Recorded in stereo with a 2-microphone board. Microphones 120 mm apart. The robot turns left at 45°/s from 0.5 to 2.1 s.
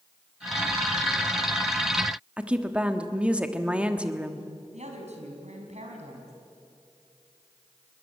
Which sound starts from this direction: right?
A woman speaking, at 4.7 s.